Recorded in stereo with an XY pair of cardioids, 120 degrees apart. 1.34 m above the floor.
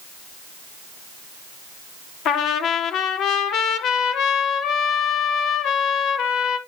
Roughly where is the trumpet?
Left.